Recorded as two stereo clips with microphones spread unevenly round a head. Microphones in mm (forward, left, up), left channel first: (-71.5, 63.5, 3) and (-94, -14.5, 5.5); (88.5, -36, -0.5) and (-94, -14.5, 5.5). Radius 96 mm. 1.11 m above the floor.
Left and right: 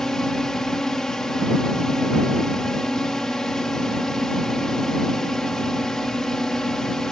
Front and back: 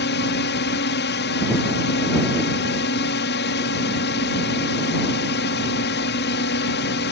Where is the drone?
10° right.